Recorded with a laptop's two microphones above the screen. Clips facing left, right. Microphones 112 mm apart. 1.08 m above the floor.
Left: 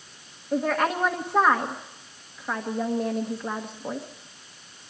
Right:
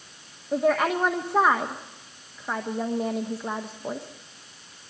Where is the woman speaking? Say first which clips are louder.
Right 2 dB; 5° right (ahead or behind), 1.3 m.